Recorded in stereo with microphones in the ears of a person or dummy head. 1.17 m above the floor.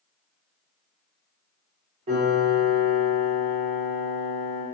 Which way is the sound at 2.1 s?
30° right (ahead or behind).